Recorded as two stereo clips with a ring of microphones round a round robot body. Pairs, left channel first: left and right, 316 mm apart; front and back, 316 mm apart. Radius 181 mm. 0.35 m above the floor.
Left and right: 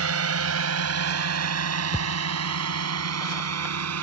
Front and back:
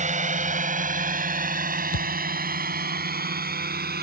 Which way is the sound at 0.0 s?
120° right.